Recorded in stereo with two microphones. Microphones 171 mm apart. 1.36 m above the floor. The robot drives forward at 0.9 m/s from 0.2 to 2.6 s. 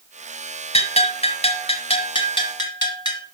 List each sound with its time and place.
0.7 s a bell: 40° left (ahead or behind), 1.5 m; by 3.2 s 25° left (ahead or behind), 2 m